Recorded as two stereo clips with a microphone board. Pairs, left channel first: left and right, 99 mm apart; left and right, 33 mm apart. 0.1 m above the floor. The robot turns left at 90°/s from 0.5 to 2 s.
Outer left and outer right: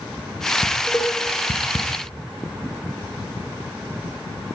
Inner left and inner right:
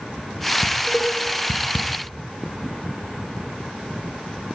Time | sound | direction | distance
0.6 | dishes clattering | 10° right (ahead or behind) | 3.5 m